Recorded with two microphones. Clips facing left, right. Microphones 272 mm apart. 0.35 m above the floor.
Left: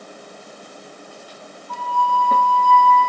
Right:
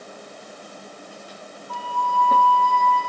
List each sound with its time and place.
1.7 s a flute: 35° right (ahead or behind), 8 m